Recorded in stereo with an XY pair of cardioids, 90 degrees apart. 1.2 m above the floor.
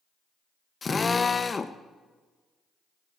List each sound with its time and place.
0.8 s a drill: 30° left, 0.8 m